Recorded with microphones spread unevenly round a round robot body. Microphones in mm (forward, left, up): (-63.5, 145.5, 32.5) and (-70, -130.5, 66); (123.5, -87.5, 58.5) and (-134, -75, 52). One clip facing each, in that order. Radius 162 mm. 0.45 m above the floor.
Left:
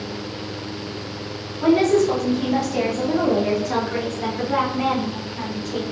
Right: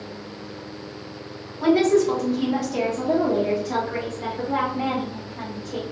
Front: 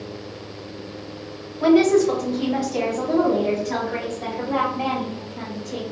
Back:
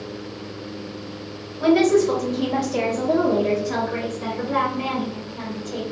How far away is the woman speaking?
About 1.3 m.